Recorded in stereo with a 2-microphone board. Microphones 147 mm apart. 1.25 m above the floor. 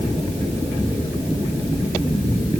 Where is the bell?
I don't hear a bell.